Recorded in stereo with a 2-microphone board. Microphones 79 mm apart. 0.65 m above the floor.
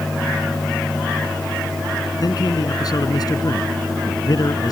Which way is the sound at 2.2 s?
55° left (ahead or behind).